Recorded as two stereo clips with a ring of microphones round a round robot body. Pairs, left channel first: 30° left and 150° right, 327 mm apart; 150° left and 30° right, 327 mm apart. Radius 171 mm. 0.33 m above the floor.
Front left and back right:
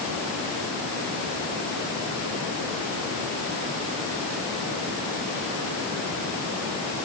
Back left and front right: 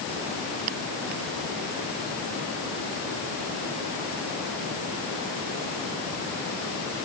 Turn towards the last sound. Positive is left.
No sound to turn to.